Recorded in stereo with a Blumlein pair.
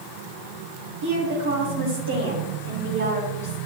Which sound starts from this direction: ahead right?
A woman speaking, at 1.0 s.